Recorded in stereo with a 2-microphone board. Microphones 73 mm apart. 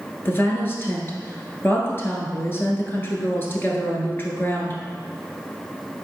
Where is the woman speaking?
30° left (ahead or behind), 1.4 m.